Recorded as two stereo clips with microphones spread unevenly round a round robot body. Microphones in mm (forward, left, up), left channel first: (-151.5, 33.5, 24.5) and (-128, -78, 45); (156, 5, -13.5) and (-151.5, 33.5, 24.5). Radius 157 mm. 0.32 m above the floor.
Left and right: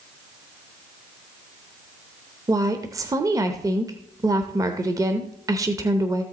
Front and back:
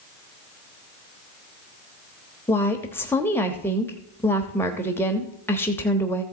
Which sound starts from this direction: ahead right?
A woman speaking, at 2.5 s.